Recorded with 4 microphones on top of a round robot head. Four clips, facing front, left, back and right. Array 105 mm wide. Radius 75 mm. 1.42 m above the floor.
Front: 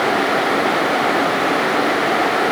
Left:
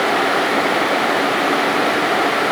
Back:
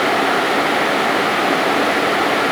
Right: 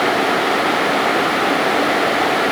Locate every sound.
Only background noise.